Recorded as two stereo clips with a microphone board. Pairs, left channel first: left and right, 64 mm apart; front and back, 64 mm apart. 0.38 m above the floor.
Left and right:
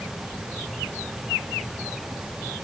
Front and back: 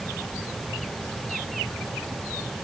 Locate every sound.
Only background noise.